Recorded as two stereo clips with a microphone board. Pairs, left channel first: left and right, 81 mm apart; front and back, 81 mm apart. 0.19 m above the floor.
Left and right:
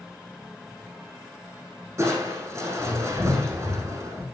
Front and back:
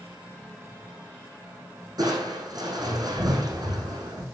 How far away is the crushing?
About 5 m.